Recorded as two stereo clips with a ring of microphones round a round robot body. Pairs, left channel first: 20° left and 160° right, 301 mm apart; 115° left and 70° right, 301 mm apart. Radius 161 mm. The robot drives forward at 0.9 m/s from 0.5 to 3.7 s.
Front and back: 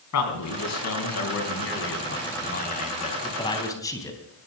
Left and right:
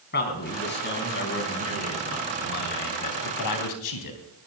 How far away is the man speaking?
About 4 m.